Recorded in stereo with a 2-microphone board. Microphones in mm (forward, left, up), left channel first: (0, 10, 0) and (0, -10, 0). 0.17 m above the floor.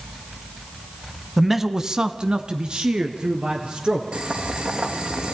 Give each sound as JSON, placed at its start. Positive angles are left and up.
{"t": 1.4, "sound": "a man speaking", "side_deg": 0, "distance_m": 1.1}
{"t": 4.1, "sound": "boiling", "side_deg": -75, "distance_m": 4.5}